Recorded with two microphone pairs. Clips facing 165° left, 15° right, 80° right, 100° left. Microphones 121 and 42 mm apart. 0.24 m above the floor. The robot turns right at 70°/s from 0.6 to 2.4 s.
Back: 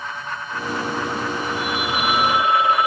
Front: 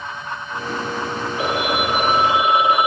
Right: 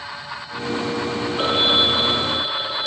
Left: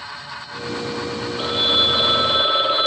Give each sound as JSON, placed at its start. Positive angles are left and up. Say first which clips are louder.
{"t": 1.4, "sound": "a phone ringing", "louder": "front 4 dB, right 1 dB", "azimuth_deg": -20}